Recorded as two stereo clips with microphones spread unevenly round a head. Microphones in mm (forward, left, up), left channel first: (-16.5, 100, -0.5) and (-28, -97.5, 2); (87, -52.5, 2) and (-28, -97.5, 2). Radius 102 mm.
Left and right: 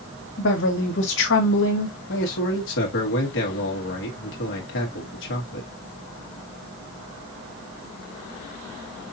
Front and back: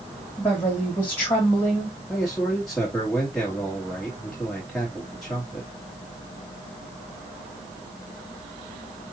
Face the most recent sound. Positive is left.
turn(degrees=110)